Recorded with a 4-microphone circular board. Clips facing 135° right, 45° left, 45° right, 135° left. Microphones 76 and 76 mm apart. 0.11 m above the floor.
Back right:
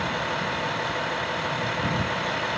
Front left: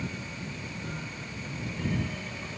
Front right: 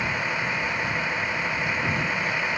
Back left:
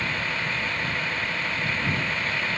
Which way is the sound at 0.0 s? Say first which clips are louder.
Back right 11 dB, front right 2 dB; 120° right.